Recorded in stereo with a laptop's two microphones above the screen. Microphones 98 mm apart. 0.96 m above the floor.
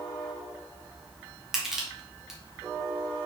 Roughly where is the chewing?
No chewing in this recording.